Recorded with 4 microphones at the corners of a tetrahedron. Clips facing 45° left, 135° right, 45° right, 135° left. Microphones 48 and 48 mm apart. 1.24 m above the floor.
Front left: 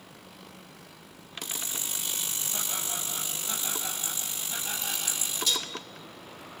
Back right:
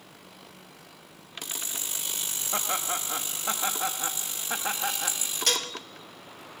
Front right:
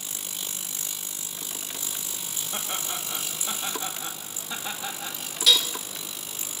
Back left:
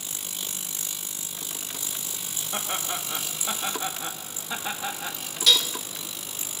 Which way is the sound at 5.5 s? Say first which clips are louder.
Back right 3 dB, even; 130° right.